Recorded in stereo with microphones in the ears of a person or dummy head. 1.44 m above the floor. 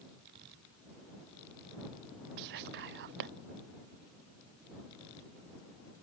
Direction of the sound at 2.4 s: 60° right (ahead or behind).